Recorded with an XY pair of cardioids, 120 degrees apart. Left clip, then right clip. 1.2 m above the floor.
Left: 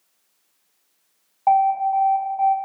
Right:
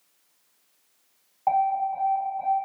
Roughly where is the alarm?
Ahead left.